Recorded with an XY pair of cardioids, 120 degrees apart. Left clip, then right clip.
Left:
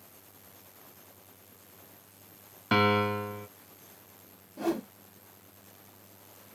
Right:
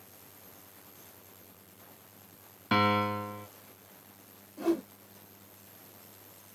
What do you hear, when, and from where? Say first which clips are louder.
2.7 s a piano: left 2 dB; 10° left, 0.9 m
4.6 s a whoosh: right 1 dB; 30° left, 0.9 m